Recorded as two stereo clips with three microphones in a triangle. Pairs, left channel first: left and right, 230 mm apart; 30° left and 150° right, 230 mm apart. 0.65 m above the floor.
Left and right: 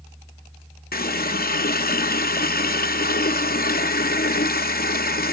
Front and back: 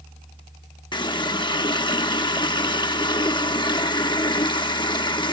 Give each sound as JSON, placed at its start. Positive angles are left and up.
{"t": 0.9, "sound": "a running tap", "azimuth_deg": 90, "distance_m": 0.6}